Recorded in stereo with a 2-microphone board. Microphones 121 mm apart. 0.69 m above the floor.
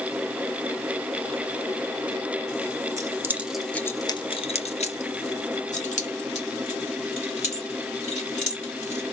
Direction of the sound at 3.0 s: 30° right (ahead or behind).